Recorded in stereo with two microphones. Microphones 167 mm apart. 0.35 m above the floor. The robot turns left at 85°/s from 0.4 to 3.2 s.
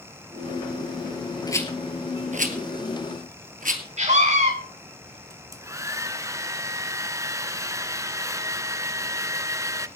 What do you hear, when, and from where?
1.5 s a rattle: 25° left (ahead or behind), 1.6 m; by 3.8 s 60° right (ahead or behind), 1.6 m
4.0 s a scream: 50° right (ahead or behind), 4 m
5.3 s a hair dryer: 20° right (ahead or behind), 0.6 m